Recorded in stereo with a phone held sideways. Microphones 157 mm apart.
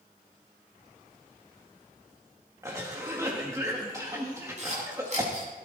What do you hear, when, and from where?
2.6 s a cough: 20° right (ahead or behind), 1.8 m
4.6 s a camera shutter: 50° right (ahead or behind), 8.5 m